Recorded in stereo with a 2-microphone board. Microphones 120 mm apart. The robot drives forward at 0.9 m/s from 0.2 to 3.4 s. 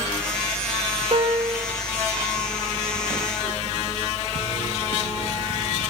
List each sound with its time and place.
1.1 s a piano: 50° right (ahead or behind), 1.8 m; by 1.6 s 40° right (ahead or behind), 2 m